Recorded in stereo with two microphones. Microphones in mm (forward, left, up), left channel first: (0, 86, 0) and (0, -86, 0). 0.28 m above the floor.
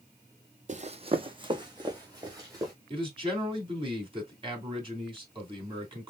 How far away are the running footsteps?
About 0.5 m.